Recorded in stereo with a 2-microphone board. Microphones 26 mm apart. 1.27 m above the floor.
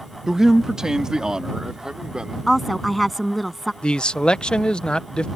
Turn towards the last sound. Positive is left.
turn(degrees=35)  # may be behind; listen again after turning